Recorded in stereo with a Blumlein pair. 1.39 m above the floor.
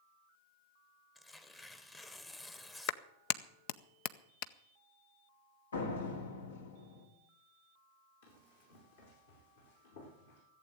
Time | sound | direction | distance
1.1 | tearing paper | 10° left | 1.1 m
2.9 | a clap | 45° left | 0.6 m
5.7 | a door slam | 70° left | 1.9 m
8.2 | running footsteps | 65° left | 4.5 m